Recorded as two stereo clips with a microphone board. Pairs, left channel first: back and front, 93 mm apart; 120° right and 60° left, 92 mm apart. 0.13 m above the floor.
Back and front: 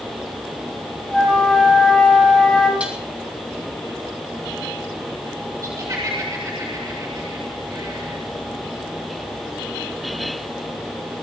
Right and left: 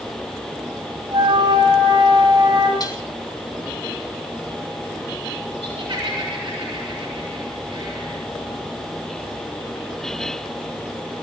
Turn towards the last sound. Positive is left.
turn(degrees=45)